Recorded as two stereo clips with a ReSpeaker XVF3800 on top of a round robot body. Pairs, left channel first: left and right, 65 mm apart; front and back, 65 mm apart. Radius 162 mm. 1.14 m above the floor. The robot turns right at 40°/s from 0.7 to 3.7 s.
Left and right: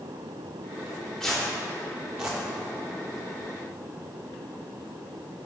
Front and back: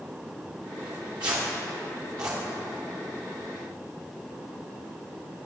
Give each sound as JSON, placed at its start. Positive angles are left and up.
{"t": 0.8, "sound": "tearing paper", "azimuth_deg": 155, "distance_m": 1.1}